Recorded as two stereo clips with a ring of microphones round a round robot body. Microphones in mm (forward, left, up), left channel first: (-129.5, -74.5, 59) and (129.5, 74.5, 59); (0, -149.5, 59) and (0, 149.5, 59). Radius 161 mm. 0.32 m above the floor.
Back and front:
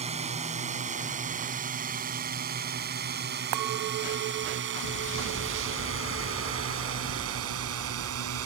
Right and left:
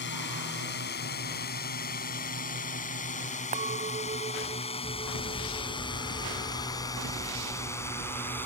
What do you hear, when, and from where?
0.0 s a drone: 40° right; by 8.5 s 5° right
3.5 s a clink: 25° left